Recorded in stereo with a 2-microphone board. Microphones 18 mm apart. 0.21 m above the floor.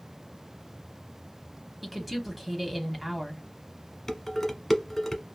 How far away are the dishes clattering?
About 1.0 m.